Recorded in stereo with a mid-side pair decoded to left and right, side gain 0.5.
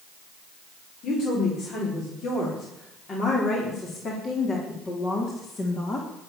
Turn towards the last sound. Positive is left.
turn(degrees=35)